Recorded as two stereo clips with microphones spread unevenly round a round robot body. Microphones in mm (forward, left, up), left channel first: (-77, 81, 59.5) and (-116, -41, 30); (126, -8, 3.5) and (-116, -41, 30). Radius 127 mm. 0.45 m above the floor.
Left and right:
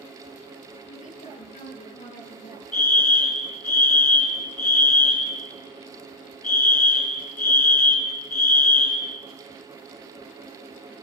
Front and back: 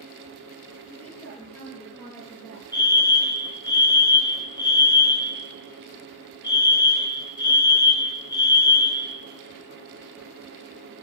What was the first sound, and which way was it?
A woman speaking, 90° left.